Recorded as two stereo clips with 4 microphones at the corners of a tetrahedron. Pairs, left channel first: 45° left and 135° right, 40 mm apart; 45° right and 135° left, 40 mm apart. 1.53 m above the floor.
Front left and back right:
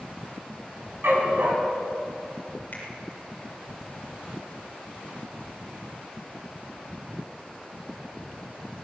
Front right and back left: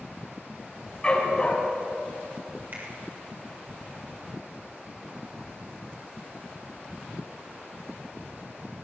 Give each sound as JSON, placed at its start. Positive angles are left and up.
{"t": 1.0, "sound": "a dog barking", "azimuth_deg": -110, "distance_m": 5.0}
{"t": 2.7, "sound": "a finger snap", "azimuth_deg": 95, "distance_m": 6.5}